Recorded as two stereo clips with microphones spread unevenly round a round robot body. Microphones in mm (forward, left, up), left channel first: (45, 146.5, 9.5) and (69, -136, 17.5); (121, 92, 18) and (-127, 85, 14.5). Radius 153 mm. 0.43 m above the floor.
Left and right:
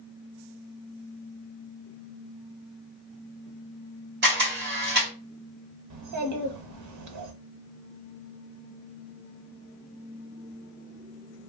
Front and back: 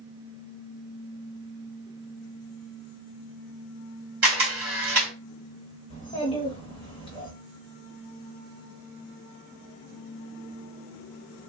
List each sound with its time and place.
4.2 s a camera shutter: 135° right, 1.9 m
5.9 s a child speaking: 70° right, 0.9 m